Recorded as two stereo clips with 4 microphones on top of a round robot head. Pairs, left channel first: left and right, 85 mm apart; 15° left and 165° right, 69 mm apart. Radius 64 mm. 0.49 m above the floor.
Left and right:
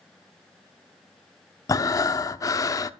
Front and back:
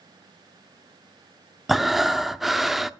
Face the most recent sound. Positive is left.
turn(degrees=110)